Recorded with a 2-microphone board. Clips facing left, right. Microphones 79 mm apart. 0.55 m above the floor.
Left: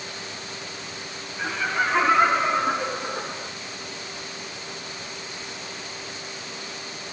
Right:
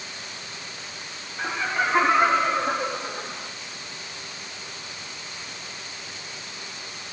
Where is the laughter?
15° right (ahead or behind), 1.0 m; by 3.5 s 35° left (ahead or behind), 1.3 m.